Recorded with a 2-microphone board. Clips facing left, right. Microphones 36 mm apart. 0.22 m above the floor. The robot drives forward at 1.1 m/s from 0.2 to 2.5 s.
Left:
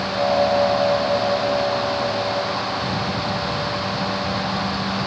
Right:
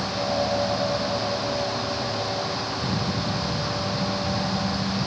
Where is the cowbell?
I don't hear a cowbell.